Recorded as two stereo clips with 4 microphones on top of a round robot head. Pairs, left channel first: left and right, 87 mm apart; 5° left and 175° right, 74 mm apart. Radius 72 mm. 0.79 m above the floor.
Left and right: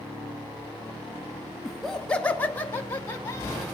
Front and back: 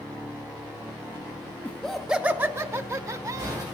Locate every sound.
1.6 s laughter: 10° right, 1.0 m; by 3.6 s 155° left, 2.5 m